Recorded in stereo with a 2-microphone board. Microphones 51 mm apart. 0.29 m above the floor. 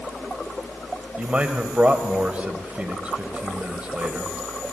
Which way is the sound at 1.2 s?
30° right (ahead or behind).